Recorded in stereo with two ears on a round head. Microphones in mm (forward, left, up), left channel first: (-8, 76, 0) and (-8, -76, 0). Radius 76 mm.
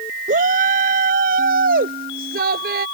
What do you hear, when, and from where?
0.3 s a shout: 50° right (ahead or behind); by 2.9 s 65° right (ahead or behind)